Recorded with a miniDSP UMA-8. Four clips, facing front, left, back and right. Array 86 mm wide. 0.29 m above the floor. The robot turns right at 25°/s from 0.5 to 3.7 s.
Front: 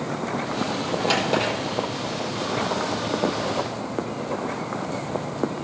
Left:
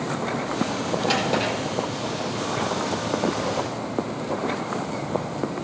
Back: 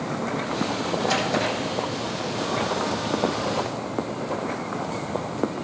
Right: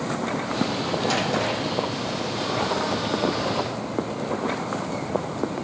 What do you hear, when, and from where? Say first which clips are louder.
1.1 s a drawer: left 2 dB, front 2 dB; 20° left, 5 m; by 1.5 s 30° left, 5 m